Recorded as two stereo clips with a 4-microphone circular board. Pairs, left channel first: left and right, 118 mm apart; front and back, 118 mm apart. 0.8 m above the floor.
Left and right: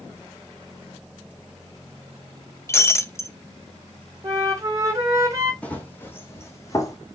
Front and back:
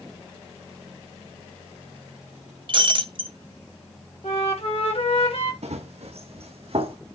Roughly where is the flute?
Ahead right.